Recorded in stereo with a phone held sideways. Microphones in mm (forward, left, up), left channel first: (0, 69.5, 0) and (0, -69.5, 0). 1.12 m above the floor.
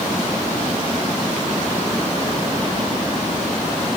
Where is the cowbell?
No cowbell in this recording.